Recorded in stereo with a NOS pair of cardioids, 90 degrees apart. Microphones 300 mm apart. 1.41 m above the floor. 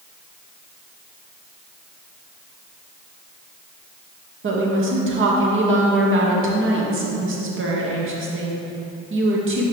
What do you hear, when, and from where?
4.4 s a woman speaking: 45° right, 1.9 m